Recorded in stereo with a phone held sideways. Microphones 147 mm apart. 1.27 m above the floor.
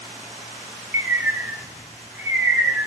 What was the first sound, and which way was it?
A bird, 10° right (ahead or behind).